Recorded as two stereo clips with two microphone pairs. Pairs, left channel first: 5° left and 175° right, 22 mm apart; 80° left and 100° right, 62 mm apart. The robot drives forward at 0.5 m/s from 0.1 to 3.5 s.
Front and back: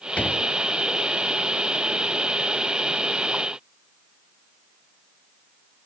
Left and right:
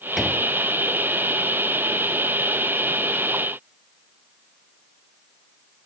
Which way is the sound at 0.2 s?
5° right.